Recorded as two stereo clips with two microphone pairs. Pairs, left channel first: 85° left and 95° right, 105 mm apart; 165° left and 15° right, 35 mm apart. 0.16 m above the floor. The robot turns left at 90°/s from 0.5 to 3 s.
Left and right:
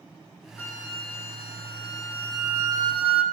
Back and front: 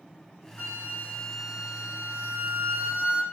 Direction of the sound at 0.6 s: 155° left.